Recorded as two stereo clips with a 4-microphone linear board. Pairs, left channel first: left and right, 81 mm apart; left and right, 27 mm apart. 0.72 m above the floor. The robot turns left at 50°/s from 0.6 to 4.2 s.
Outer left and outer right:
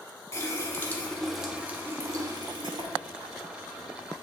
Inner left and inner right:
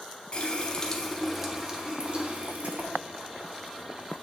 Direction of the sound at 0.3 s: 35° left.